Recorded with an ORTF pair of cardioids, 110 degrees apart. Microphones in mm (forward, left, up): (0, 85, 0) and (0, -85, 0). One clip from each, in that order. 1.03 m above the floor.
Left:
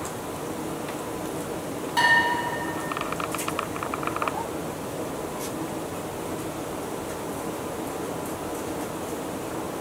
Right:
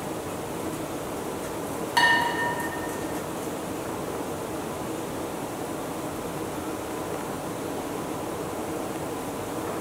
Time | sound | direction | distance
2.0 | dishes clattering | 35° right | 0.7 m